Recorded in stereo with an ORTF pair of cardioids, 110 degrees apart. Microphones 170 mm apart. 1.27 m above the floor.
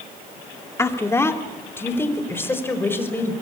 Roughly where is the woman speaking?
Ahead.